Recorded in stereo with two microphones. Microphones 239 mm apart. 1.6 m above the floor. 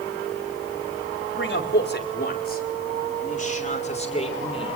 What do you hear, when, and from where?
1.4 s a man speaking: 50° left (ahead or behind), 4.5 m; by 4.8 s 20° left (ahead or behind), 6.5 m